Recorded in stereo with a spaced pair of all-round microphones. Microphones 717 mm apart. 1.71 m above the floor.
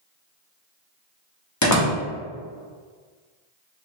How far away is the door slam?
About 0.8 m.